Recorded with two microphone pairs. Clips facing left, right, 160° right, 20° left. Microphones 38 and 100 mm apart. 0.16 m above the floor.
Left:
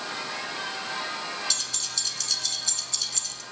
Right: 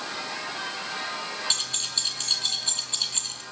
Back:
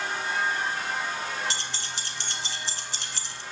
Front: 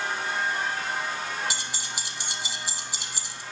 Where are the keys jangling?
55° right, 1.3 m.